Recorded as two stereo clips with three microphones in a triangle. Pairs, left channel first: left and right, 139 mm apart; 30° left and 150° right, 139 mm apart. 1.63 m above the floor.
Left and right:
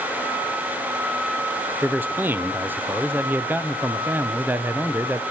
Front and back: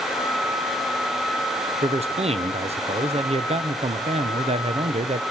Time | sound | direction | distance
1.8 | a man speaking | 160° right | 0.6 m